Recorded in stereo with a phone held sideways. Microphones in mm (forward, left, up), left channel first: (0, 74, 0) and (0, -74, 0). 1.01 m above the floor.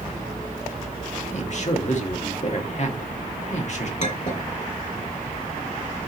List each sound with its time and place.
1.3 s a man speaking: 50° left (ahead or behind), 1.6 m
4.0 s a clink: 50° left (ahead or behind), 2.5 m